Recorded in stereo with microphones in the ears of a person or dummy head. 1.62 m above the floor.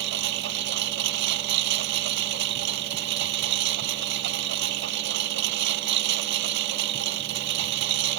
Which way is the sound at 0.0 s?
70° right (ahead or behind).